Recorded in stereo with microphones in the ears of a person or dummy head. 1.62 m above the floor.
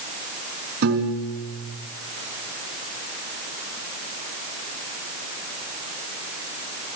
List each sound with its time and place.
0.8 s a piano: 55° right (ahead or behind), 4 m